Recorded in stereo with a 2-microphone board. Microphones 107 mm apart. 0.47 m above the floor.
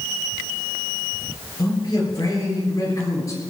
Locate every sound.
1.6 s a man speaking: 40° left (ahead or behind), 10 m; by 3.4 s 30° left (ahead or behind), 10 m